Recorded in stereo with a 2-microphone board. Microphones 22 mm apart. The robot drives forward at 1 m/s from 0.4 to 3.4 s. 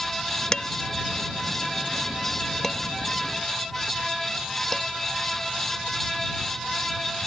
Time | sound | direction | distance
0.5 | dishes clattering | 35° left (ahead or behind) | ?